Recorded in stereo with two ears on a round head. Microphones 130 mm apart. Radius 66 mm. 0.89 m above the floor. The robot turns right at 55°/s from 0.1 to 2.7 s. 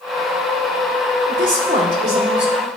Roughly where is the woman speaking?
Right.